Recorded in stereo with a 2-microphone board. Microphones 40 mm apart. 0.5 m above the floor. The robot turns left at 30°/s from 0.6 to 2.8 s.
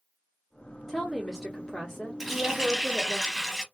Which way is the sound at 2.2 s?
Centre (ahead or behind).